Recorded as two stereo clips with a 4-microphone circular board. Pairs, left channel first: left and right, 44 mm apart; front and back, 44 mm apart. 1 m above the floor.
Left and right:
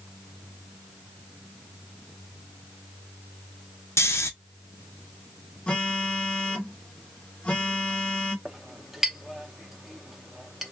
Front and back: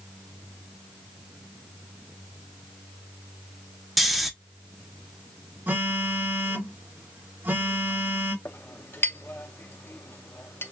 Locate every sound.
4.0 s snoring: 90° left, 0.7 m
5.7 s a phone buzzing: 155° left, 1.6 m
8.4 s a clink: 5° right, 0.7 m